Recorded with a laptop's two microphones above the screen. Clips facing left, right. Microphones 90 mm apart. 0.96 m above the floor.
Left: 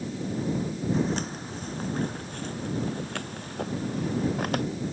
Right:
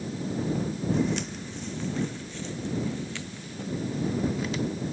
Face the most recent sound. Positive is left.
turn(degrees=60)  # may be behind; listen again after turning